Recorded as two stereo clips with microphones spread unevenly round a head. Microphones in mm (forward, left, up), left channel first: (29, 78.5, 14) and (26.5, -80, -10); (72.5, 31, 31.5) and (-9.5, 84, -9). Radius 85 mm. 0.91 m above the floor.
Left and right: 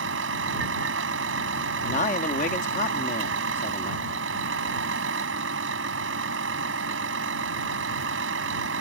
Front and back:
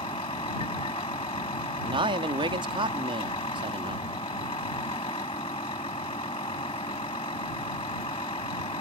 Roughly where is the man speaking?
Behind left.